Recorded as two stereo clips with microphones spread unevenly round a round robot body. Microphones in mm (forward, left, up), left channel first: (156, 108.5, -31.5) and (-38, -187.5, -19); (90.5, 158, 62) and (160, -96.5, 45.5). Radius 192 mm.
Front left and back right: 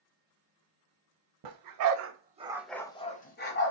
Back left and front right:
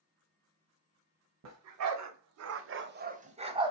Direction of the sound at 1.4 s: 100° right.